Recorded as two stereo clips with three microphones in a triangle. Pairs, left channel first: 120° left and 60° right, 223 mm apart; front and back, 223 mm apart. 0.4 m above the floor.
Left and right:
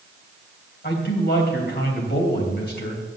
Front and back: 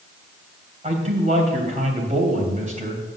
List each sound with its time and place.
0.8 s a man speaking: 135° left, 2.5 m